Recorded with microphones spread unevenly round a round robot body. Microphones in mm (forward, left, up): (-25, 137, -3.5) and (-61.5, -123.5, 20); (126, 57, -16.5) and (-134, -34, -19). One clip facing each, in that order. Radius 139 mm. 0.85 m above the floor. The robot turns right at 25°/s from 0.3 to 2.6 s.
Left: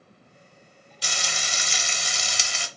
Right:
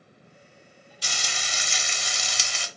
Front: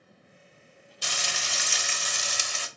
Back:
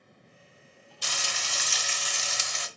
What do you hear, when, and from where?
1.0 s frying: 40° left, 0.6 m; by 2.7 s 80° left, 0.6 m